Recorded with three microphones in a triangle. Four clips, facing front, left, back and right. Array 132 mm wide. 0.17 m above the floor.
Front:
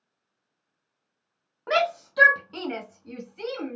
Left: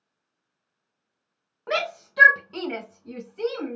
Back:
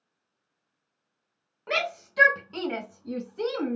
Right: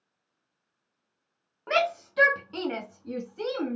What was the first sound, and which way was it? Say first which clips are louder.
A shout: right 2 dB, front 6 dB; 15° left.